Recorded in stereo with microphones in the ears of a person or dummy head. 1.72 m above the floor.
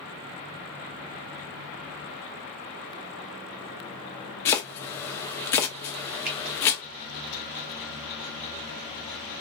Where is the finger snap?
45° right (ahead or behind), 1.1 m.